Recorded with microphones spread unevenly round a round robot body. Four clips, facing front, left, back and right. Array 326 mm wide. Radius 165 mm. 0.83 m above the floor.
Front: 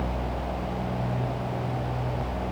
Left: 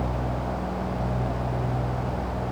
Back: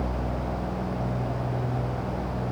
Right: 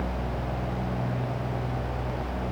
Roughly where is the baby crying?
I don't hear a baby crying.